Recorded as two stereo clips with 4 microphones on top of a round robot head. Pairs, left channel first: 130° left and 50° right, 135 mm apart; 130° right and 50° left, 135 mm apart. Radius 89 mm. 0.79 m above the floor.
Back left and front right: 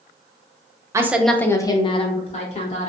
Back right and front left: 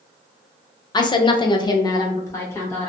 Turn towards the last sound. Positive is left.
turn(degrees=160)